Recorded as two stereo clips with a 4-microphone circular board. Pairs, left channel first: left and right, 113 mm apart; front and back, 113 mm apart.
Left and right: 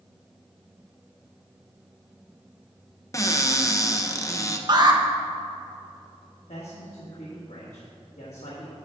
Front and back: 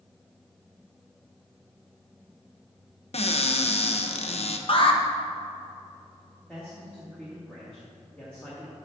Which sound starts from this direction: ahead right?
An alarm, at 4.7 s.